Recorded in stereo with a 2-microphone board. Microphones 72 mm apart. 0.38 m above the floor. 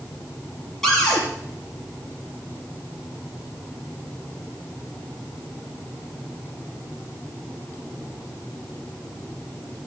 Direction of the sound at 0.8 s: 5° left (ahead or behind).